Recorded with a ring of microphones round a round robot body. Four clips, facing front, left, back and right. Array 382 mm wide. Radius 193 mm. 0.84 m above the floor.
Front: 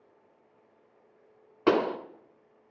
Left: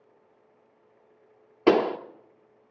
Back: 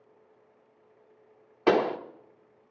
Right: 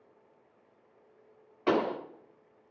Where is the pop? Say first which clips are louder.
Left 7 dB, back 1 dB; 60° left, 1.4 m.